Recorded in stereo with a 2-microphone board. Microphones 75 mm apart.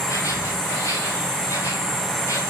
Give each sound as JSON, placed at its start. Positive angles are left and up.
{"t": 0.0, "sound": "an insect", "side_deg": 40, "distance_m": 1.9}